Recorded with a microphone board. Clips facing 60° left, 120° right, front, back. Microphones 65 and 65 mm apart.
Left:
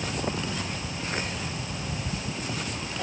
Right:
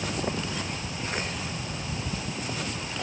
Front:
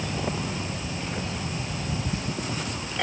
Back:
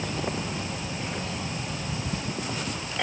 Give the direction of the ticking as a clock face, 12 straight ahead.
I don't hear ticking.